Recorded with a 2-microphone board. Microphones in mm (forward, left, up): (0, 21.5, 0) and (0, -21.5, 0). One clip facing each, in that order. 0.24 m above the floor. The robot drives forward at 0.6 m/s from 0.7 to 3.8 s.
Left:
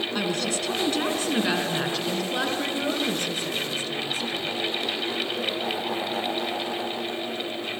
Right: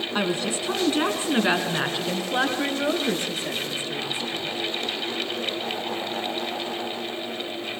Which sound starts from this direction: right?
A woman speaking, at 0.1 s.